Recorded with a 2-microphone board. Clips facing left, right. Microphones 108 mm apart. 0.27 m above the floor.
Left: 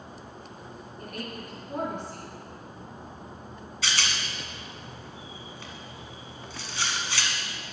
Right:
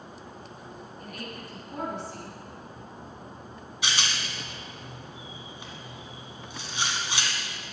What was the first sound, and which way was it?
A woman speaking, 50° left (ahead or behind).